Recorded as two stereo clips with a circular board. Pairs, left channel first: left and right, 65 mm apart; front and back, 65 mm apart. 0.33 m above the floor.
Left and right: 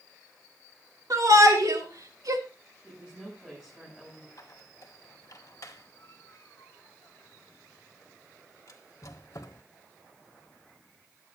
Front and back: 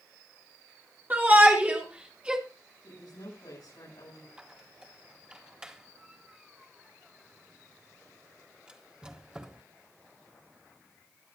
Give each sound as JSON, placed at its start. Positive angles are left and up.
{"t": 1.1, "sound": "a shout", "azimuth_deg": -115, "distance_m": 4.0}
{"t": 2.8, "sound": "a woman speaking", "azimuth_deg": -10, "distance_m": 9.0}
{"t": 4.4, "sound": "a squeak", "azimuth_deg": 110, "distance_m": 1.6}